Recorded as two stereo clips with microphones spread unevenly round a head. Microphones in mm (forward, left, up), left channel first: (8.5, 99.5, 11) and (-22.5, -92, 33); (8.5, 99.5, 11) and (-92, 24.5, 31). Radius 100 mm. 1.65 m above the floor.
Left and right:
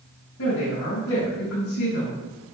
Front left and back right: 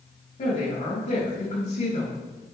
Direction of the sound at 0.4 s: 70° left.